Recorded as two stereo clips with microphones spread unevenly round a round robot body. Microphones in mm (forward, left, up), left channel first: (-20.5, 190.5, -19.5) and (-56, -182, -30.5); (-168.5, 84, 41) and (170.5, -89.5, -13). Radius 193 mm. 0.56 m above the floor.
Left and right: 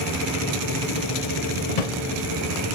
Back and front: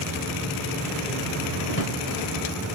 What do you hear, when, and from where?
1.7 s a drawer: 90° left, 0.8 m